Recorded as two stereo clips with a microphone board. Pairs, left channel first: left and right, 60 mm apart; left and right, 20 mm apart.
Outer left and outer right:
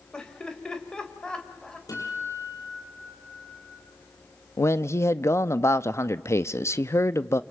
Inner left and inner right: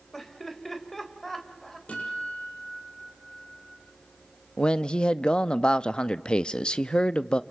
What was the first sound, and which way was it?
Laughter, 15° left (ahead or behind).